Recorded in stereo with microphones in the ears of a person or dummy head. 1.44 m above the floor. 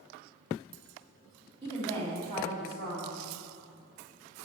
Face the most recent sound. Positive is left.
turn(degrees=-30)  # may be behind; listen again after turning